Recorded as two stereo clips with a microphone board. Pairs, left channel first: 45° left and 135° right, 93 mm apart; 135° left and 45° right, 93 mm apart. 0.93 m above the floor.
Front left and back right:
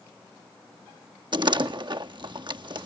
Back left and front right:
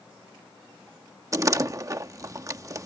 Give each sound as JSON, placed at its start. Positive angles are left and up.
{"t": 1.3, "sound": "a door slam", "azimuth_deg": -100}